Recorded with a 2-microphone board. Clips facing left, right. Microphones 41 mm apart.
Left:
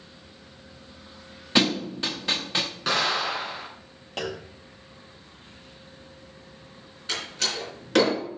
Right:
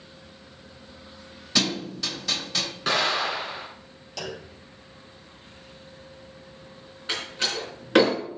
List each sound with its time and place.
1.6 s a thud: 30° left (ahead or behind), 0.7 m
2.9 s an explosion: centre (ahead or behind), 3 m
4.2 s a clunk: 40° left (ahead or behind), 0.9 m
7.1 s a door slam: 15° right (ahead or behind), 3.5 m